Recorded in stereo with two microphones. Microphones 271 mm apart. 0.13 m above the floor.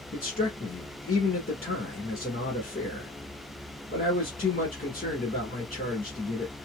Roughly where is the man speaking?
Left.